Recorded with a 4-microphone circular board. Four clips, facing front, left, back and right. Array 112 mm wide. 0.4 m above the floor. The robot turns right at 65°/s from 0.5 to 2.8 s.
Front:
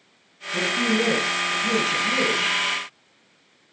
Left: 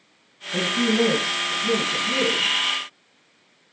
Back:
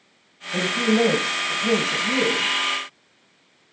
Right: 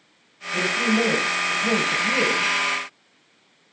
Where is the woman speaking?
160° left, 3 m; by 2.5 s 75° right, 3 m.